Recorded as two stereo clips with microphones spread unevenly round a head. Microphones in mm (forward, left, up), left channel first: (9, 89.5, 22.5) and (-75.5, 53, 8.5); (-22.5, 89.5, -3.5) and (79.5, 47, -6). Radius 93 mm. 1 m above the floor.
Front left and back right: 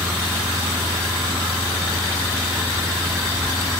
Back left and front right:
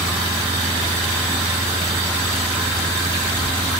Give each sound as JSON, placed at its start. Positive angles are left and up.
{"t": 0.0, "sound": "a fan", "azimuth_deg": -75}